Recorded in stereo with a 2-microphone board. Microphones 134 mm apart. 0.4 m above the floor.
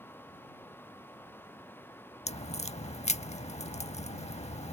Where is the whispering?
I don't hear whispering.